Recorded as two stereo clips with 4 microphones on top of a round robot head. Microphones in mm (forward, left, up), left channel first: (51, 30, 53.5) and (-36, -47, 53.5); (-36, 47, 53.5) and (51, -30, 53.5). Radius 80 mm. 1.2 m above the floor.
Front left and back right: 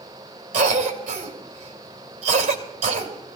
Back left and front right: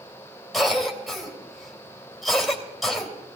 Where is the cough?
130° right, 3 m.